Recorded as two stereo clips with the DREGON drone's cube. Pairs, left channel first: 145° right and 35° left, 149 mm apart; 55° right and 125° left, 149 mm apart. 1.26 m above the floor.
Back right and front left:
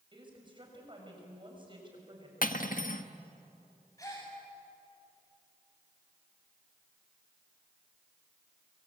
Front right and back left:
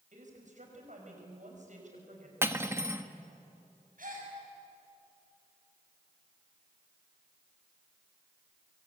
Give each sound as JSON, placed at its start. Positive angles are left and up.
{"t": 0.1, "sound": "a woman speaking", "azimuth_deg": 90, "distance_m": 7.0}
{"t": 2.4, "sound": "cutlery clinking", "azimuth_deg": -165, "distance_m": 1.3}
{"t": 4.0, "sound": "a gasp", "azimuth_deg": 145, "distance_m": 7.5}